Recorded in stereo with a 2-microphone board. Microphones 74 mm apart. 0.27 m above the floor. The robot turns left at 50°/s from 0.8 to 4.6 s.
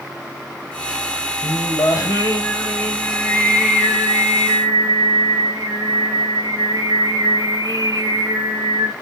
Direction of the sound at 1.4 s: 95° left.